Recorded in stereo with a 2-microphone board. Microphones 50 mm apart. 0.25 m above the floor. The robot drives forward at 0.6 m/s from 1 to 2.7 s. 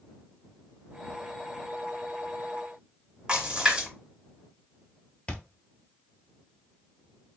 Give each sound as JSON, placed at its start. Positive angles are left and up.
{"t": 3.3, "sound": "a splash", "side_deg": -15, "distance_m": 2.0}
{"t": 5.3, "sound": "a thud", "side_deg": 30, "distance_m": 0.7}